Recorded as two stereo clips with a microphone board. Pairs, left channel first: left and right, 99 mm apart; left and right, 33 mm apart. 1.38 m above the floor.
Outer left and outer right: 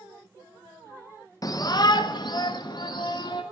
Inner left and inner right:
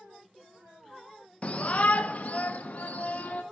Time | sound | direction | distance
1.4 | a shout | 40° left (ahead or behind) | 0.7 m